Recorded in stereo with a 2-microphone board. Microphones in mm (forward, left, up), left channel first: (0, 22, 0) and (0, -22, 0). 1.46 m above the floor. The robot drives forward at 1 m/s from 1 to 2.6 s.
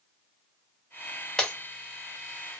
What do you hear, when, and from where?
1.4 s breaking glass: 15° left (ahead or behind), 1.4 m